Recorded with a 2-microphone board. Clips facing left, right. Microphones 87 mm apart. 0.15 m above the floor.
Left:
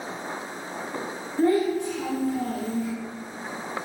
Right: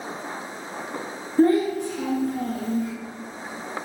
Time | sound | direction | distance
1.4 | a child speaking | 40° right (ahead or behind) | 1.0 m